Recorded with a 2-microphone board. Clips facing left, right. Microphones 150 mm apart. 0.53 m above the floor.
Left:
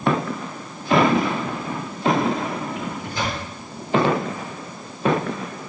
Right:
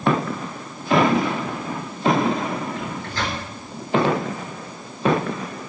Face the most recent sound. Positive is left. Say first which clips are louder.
# even
turn(degrees=15)  # may be behind; listen again after turning